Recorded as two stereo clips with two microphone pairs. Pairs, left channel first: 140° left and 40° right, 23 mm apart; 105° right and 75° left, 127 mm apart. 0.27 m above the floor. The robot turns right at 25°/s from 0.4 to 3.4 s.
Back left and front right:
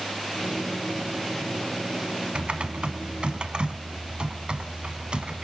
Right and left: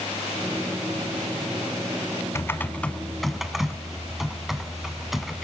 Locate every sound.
2.4 s typing on a keyboard: 40° right, 0.9 m; by 5.5 s 15° right, 0.9 m